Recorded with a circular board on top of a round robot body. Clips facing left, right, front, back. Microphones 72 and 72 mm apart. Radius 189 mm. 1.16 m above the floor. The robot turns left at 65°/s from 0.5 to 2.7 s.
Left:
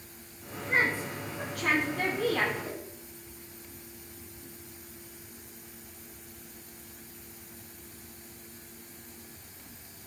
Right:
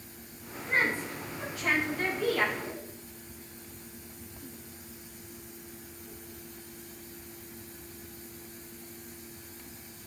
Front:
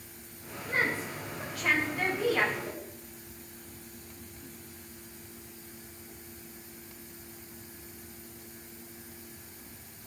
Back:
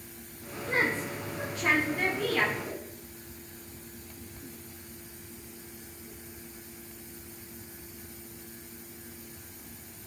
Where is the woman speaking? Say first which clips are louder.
Left 1 dB, back 2 dB; straight behind, 5 m; by 2.5 s 60° left, 5 m.